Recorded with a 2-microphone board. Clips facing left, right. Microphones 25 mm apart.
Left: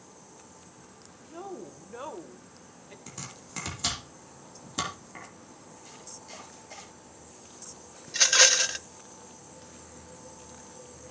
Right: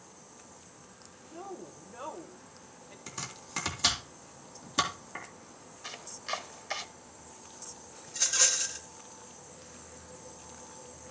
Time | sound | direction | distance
1.3 | a woman speaking | 25° left (ahead or behind) | 1.5 m
3.1 | chopping | 15° right (ahead or behind) | 3 m
5.8 | chopping | 65° right (ahead or behind) | 1.3 m
8.1 | a rattle | 70° left (ahead or behind) | 0.6 m